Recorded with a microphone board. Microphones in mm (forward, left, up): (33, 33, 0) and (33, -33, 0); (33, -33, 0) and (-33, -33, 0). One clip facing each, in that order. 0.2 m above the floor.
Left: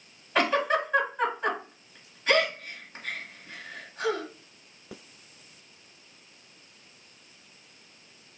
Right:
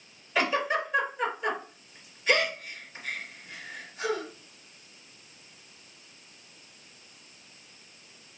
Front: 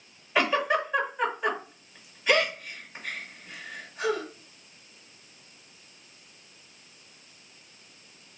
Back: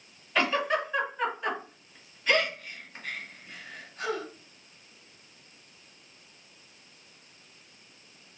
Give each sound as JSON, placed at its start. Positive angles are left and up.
{"t": 0.3, "sound": "a giggle", "azimuth_deg": 65, "distance_m": 2.5}